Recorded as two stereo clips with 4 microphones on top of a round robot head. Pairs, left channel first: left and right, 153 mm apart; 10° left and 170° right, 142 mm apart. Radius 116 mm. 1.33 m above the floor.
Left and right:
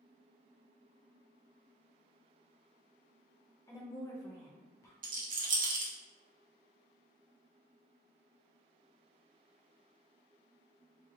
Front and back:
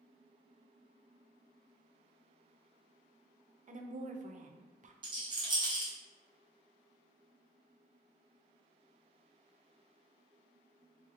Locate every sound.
3.7 s a woman speaking: 160° left, 0.5 m
5.0 s a rattle: 115° right, 0.8 m